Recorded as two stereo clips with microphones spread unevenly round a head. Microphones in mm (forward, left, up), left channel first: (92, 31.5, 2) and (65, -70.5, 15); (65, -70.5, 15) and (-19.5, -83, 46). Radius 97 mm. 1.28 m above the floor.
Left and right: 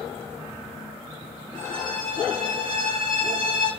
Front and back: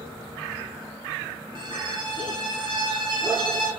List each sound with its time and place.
1.6 s a violin: 165° right, 4.5 m